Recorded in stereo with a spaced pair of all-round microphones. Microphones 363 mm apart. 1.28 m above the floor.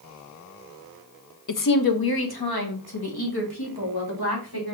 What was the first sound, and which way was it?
A woman speaking, 55° left (ahead or behind).